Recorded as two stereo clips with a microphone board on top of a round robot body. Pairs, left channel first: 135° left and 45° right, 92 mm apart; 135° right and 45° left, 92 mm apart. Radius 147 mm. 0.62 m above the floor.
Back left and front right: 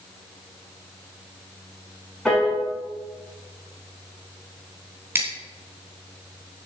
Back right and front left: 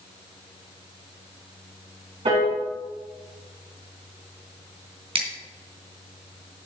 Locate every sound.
2.2 s a piano: 50° left, 6 m
5.2 s scissors: 20° left, 3 m